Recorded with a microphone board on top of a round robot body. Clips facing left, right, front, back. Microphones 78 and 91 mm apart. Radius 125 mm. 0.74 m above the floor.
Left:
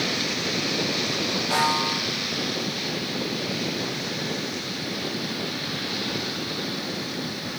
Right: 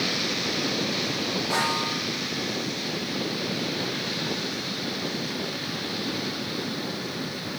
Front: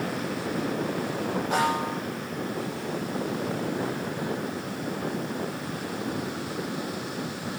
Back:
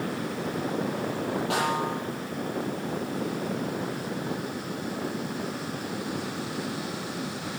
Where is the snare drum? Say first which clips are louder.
Left 5 dB, front 3 dB; 170° right, 7.5 m.